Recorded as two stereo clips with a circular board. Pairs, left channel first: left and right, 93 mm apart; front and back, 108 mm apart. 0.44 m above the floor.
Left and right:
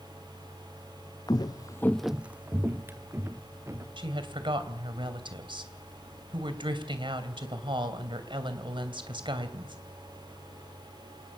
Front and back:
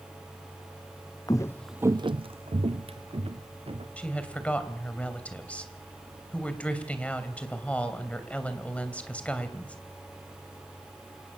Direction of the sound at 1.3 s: 50° left.